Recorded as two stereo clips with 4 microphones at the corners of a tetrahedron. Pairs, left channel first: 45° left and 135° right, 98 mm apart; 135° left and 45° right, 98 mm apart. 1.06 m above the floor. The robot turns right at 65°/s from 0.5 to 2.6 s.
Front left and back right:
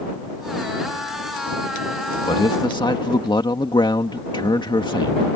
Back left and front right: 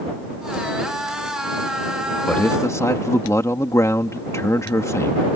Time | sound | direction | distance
2.3 | a man speaking | 55° left | ?